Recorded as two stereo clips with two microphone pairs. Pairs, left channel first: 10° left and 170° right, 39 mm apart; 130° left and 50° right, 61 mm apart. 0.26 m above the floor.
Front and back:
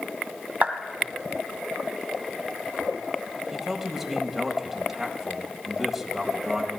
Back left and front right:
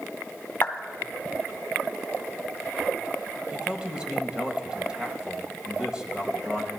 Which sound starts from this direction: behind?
A clap, at 0.6 s.